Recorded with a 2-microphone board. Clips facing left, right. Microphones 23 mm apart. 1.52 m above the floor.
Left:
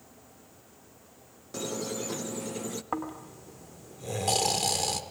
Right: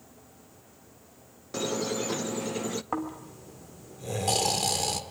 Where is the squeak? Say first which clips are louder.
Right 4 dB; 20° right (ahead or behind), 0.5 m.